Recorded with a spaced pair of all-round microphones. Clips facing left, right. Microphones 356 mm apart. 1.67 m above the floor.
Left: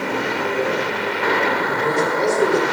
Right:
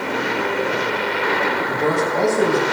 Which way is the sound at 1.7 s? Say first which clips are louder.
Even; 65° right (ahead or behind).